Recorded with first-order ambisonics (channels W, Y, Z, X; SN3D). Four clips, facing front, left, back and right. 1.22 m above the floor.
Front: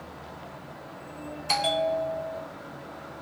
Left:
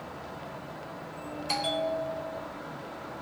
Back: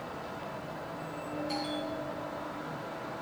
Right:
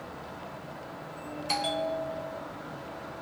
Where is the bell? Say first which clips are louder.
Even, front 13 dB; straight ahead, 0.6 m.